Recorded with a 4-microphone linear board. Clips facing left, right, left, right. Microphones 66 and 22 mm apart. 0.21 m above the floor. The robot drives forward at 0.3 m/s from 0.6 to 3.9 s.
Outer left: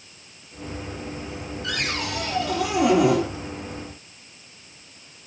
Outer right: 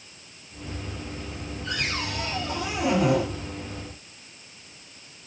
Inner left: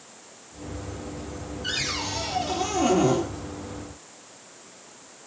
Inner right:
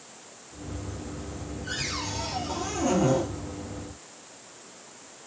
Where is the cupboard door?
65° left (ahead or behind), 6.5 m; by 3.2 s 70° left (ahead or behind), 6.5 m.